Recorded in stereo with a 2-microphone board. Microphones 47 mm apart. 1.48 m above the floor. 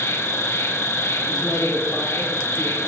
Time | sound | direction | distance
0.0 | an insect | 65° left (ahead or behind) | 0.8 m
1.3 | a man speaking | 10° left (ahead or behind) | 1.7 m